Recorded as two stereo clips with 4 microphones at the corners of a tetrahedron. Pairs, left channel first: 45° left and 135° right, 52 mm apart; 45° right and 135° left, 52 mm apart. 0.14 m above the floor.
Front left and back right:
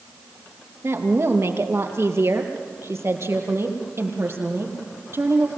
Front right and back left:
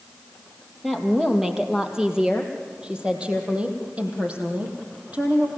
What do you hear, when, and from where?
0.8 s a woman speaking: 140° right, 3 m; by 5.5 s 170° right, 5 m